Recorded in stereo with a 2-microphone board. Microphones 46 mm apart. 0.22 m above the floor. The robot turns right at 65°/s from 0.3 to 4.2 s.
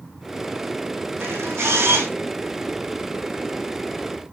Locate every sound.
1.2 s a camera shutter: 120° right, 4 m; by 2.1 s 65° right, 4 m